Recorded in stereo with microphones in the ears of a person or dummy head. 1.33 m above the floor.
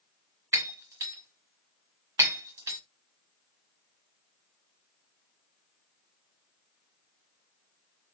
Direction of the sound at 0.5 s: 15° right (ahead or behind).